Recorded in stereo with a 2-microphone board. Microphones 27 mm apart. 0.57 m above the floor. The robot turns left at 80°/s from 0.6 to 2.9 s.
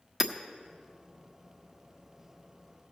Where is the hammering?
15° right (ahead or behind), 0.7 m.